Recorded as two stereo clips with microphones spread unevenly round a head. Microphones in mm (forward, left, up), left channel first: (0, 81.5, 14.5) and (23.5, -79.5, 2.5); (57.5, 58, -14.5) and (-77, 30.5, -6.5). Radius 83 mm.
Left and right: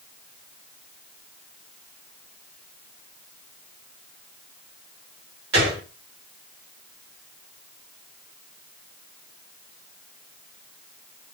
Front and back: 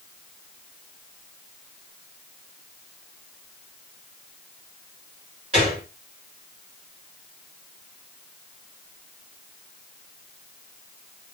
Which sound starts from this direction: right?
A gunshot, at 5.5 s.